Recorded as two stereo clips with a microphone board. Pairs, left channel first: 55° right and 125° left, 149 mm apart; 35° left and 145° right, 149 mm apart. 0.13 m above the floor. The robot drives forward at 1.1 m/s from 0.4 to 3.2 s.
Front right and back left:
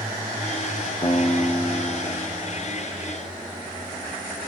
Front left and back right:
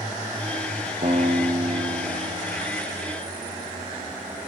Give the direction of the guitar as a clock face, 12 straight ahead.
4 o'clock.